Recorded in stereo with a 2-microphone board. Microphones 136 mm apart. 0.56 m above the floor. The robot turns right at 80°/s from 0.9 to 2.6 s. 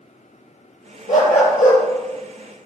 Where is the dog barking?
70° left, 4 m; by 1.8 s 125° left, 4 m.